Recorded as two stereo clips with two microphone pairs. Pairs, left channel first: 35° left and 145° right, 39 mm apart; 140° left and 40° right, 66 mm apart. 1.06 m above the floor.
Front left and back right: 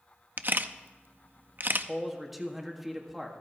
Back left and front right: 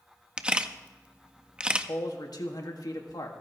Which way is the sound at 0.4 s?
115° right.